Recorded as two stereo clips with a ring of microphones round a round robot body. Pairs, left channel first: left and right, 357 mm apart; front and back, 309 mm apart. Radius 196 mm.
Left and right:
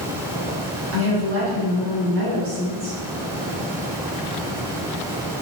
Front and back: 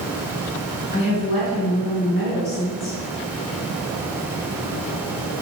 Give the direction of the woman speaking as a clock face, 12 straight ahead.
2 o'clock.